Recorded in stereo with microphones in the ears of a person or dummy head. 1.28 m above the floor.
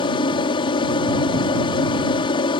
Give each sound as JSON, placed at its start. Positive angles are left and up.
{"t": 0.0, "sound": "an aircraft", "side_deg": 25}